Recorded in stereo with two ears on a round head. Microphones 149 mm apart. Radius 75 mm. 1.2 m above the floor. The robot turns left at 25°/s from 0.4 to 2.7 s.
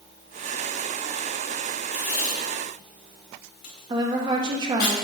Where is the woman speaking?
25° right (ahead or behind), 1.3 m.